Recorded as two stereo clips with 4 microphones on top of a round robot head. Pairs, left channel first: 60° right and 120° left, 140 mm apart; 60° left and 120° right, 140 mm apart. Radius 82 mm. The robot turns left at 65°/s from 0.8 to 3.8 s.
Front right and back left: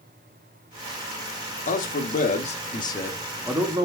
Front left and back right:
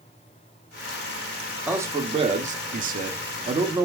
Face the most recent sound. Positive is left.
turn(degrees=180)